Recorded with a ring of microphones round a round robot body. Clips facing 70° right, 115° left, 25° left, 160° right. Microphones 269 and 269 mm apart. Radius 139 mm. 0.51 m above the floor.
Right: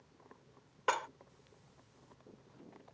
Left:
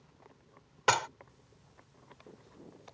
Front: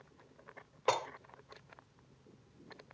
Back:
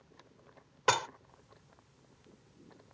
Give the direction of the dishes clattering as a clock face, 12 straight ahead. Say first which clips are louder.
Left 5 dB, back 1 dB; 7 o'clock.